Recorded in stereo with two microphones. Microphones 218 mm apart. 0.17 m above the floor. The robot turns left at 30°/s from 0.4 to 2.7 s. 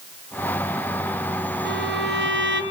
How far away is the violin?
About 2.5 m.